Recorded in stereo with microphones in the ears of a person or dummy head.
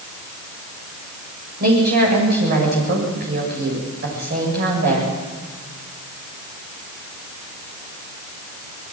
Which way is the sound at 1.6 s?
55° right (ahead or behind).